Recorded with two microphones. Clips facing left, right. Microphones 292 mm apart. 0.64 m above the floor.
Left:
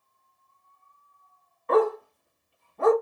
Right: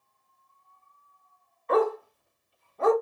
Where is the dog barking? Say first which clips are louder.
Left 2 dB; 60° left (ahead or behind), 1.1 m.